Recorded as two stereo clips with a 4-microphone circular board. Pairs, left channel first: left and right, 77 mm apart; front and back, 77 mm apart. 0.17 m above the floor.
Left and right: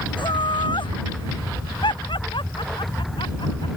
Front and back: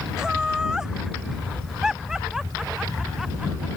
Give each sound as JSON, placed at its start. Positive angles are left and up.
{"t": 0.2, "sound": "laughter", "azimuth_deg": 100}